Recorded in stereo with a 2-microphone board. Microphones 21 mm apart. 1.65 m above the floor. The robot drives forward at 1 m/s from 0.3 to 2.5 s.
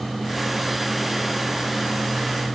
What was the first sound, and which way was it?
Only background noise.